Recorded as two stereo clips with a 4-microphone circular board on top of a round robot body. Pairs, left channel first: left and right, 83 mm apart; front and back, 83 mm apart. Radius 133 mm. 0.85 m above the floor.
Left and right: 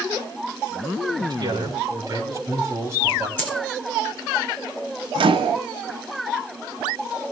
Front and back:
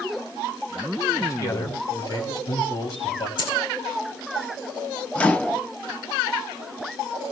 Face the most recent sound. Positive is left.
turn(degrees=-75)